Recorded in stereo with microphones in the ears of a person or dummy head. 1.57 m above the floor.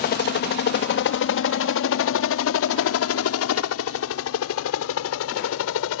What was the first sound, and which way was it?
A helicopter, 45° left (ahead or behind).